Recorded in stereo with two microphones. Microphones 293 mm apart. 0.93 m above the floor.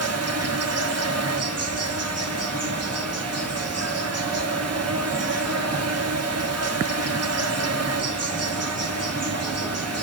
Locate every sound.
0.0 s an insect: 55° right (ahead or behind), 1.3 m